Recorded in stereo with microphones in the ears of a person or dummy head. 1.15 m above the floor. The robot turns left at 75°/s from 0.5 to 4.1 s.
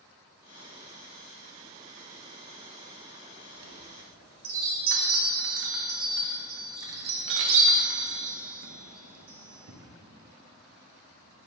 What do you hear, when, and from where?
3.5 s a chime: 55° right (ahead or behind), 1.2 m; by 9.8 s 75° right (ahead or behind), 1.2 m